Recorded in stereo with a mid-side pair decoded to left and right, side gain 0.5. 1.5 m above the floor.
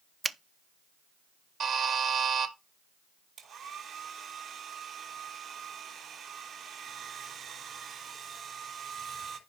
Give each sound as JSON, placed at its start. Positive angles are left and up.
{"t": 0.2, "sound": "a finger snap", "azimuth_deg": -30, "distance_m": 0.5}
{"t": 1.6, "sound": "a buzzer", "azimuth_deg": -55, "distance_m": 2.0}
{"t": 3.4, "sound": "a hair dryer", "azimuth_deg": -60, "distance_m": 5.0}